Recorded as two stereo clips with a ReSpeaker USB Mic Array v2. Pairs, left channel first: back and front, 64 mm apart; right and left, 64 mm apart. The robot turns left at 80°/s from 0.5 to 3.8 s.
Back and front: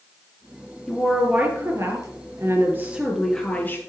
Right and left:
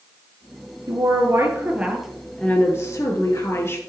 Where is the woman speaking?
100° left, 2.5 m; by 3.8 s 135° right, 2.5 m.